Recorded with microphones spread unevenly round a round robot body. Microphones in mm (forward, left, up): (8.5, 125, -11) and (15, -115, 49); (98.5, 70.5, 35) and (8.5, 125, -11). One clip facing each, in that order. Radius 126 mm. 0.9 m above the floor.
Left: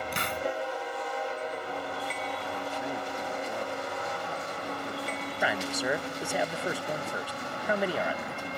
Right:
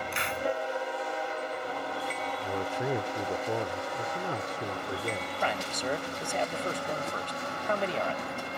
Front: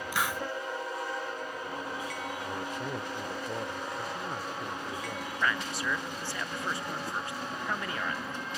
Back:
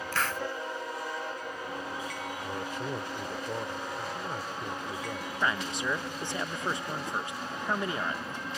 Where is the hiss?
40° left.